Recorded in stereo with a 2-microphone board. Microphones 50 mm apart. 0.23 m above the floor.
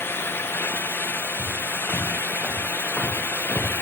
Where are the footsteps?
Centre (ahead or behind), 4 m; by 3.7 s 10° left (ahead or behind), 3 m.